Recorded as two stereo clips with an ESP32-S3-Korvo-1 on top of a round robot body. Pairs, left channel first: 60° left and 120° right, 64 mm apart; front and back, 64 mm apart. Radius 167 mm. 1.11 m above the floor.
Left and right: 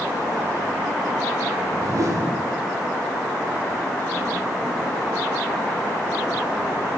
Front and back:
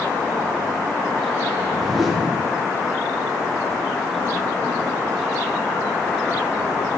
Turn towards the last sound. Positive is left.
turn(degrees=-90)